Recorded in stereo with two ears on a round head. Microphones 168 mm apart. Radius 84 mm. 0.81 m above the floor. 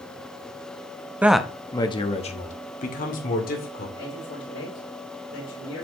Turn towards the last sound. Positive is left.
turn(degrees=75)  # may be behind; listen again after turning